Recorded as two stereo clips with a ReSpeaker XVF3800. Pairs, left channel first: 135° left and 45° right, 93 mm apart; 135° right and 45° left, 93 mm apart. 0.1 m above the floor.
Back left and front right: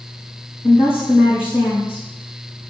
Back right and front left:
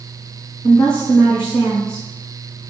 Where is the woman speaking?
150° left, 4.5 m.